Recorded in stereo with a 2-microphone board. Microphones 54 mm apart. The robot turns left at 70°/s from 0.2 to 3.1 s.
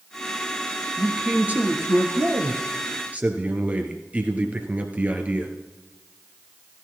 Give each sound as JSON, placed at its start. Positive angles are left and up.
{"t": 1.0, "sound": "a man speaking", "azimuth_deg": 0, "distance_m": 2.0}